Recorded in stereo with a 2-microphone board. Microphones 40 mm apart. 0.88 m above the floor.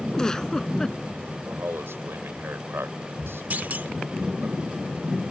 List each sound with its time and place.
0.1 s a giggle: 15° left (ahead or behind)
1.4 s a man speaking: 75° right (ahead or behind)
3.5 s a clunk: 50° right (ahead or behind)